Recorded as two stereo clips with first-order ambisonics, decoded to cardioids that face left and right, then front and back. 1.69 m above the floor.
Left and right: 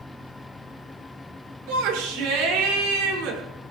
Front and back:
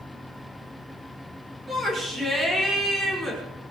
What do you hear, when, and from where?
1.7 s a shout: 105° right, 6.5 m